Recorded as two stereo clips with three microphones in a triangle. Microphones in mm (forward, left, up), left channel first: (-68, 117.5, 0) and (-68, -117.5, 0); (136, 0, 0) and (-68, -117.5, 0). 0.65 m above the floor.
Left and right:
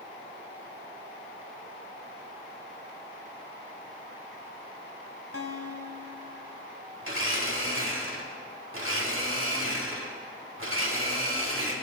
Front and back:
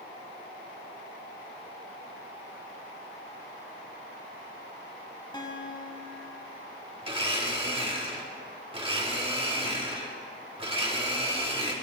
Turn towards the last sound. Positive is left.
turn(degrees=-85)